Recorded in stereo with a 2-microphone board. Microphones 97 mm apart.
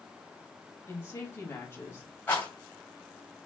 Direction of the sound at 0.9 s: 30° left (ahead or behind).